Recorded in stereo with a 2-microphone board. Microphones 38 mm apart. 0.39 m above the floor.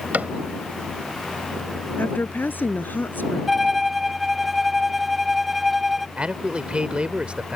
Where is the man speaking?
30° right (ahead or behind).